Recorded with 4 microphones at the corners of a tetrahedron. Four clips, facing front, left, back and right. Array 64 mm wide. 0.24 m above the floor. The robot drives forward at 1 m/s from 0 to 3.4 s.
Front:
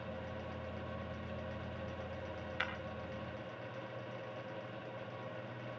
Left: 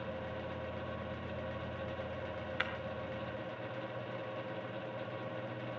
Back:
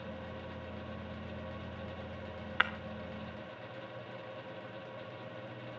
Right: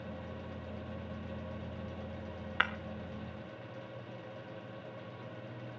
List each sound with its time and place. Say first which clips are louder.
2.6 s breaking glass: right 7 dB, back 9 dB; 145° right, 1.3 m